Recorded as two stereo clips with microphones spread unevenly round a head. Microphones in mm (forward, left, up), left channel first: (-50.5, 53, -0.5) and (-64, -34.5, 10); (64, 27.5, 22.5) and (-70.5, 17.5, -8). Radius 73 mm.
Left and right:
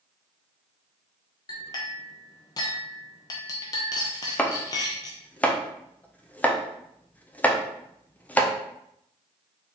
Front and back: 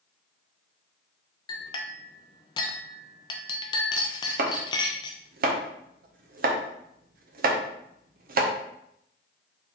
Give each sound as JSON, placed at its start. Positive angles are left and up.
{"t": 1.5, "sound": "a clink", "azimuth_deg": 30, "distance_m": 0.6}
{"t": 4.4, "sound": "chopping", "azimuth_deg": 160, "distance_m": 0.8}